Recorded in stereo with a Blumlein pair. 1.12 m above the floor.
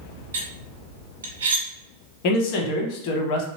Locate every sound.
0.3 s cutlery clinking: 65° right, 1.0 m
2.2 s a man speaking: 45° left, 0.7 m